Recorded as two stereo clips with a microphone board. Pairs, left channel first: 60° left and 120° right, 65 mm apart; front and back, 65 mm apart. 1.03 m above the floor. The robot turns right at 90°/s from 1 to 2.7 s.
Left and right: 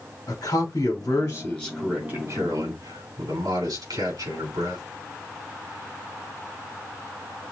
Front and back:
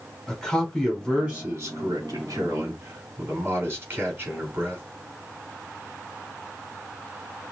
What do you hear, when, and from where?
0.3 s a man speaking: 85° left, 4.5 m; by 4.8 s 120° right, 4.5 m